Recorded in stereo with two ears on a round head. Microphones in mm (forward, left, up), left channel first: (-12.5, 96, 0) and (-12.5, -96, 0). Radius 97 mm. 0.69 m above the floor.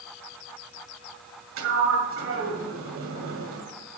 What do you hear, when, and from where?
1.6 s a sliding door: 60° right (ahead or behind), 2.0 m